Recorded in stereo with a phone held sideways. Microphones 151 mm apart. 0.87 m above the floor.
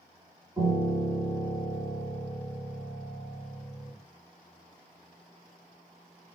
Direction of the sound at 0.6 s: 25° right (ahead or behind).